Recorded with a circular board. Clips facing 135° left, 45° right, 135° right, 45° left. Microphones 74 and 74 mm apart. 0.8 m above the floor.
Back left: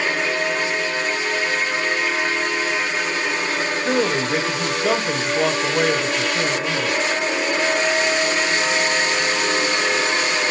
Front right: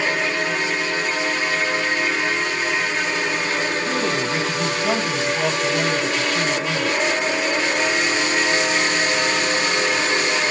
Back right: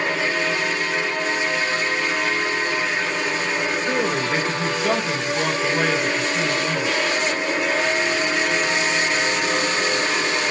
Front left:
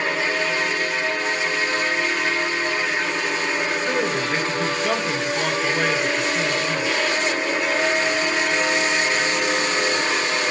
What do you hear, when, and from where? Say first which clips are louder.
3.9 s a man speaking: back left 2 dB, back right 1 dB; 140° left, 4 m